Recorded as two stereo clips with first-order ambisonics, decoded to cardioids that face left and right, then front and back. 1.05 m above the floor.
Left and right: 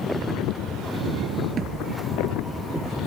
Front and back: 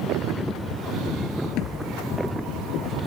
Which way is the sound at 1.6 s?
35° right.